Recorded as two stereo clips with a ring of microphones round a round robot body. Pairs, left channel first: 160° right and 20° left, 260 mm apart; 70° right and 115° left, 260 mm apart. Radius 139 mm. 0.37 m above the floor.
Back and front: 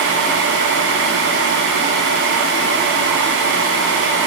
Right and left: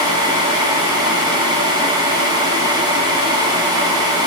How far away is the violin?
No violin in this recording.